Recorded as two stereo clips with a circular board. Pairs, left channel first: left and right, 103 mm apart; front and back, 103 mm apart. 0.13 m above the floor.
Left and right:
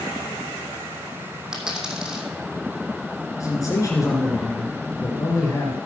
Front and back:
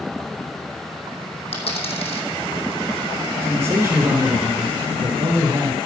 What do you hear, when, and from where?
1.5 s a dropped coin: 10° right, 3 m
3.4 s a man speaking: 130° left, 2 m